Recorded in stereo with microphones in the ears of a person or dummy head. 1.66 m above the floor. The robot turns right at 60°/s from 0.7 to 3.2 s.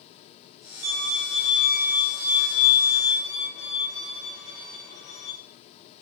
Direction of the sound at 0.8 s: 75° right.